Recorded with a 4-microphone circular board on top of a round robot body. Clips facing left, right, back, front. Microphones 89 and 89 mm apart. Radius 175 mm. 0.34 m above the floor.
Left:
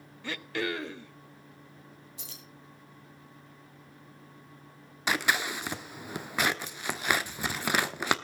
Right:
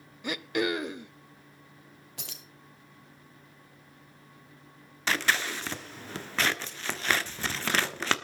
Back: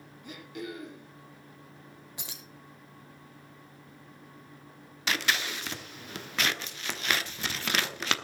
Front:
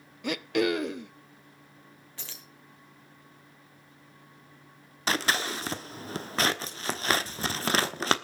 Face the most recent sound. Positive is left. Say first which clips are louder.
# even, front 2 dB
turn(degrees=20)